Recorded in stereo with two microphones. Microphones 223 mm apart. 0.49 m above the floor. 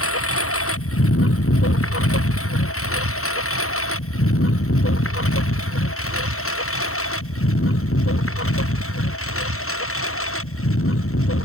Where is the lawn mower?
80° left; by 11.5 s 75° left (ahead or behind).